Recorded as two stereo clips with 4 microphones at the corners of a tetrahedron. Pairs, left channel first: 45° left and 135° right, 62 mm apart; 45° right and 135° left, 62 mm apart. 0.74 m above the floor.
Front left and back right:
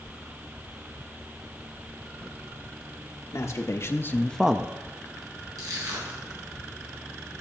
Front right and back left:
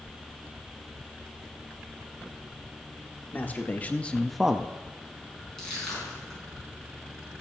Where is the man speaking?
10° left, 1.6 m; by 4.7 s 175° right, 0.7 m.